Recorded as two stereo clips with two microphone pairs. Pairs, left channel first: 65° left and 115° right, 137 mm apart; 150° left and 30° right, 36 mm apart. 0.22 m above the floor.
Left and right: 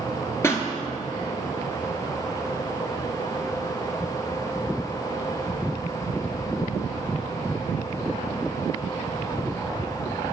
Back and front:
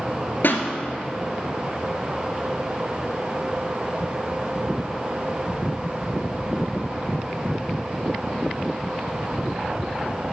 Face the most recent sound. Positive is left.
turn(degrees=135)